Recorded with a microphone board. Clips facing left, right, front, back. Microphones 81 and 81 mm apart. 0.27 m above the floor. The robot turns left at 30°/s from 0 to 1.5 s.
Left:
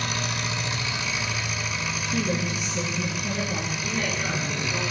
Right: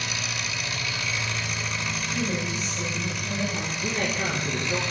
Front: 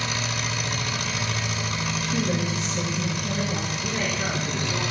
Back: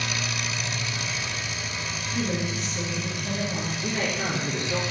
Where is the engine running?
55° left, 1.1 m; by 4.9 s 10° left, 1.1 m.